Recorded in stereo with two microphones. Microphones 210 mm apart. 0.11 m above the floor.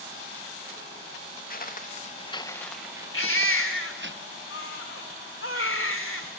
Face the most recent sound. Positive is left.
turn(degrees=80)